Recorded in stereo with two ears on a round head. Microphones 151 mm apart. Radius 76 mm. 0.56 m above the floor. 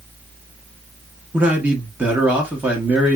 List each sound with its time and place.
1.3 s a man speaking: 10° right (ahead or behind), 0.7 m